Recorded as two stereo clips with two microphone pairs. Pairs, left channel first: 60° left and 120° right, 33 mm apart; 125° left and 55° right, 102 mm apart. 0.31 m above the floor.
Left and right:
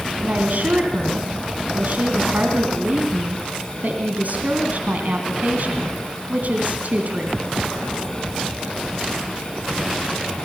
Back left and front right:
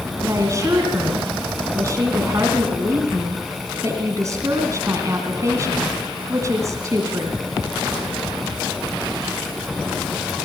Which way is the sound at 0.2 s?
105° right.